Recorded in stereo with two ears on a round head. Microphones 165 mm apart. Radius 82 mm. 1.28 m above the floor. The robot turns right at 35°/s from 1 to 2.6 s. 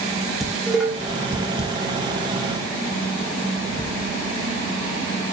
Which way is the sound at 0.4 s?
Centre (ahead or behind).